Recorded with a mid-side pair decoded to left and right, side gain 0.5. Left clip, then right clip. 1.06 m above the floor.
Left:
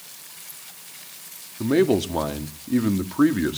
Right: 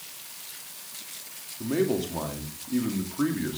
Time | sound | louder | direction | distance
1.6 | a man speaking | left 7 dB | 50° left | 2 m